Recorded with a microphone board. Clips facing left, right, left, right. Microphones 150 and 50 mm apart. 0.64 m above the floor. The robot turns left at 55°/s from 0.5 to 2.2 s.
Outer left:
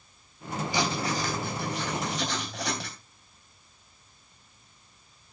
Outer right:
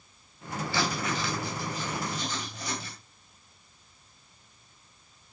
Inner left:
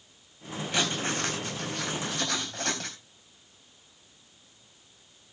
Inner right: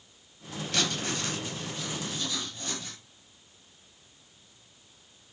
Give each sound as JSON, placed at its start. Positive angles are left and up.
{"t": 0.7, "sound": "writing", "azimuth_deg": 165, "distance_m": 3.0}